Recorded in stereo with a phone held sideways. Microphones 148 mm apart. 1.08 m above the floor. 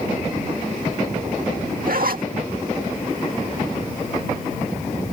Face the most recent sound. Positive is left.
turn(degrees=-75)  # may be behind; listen again after turning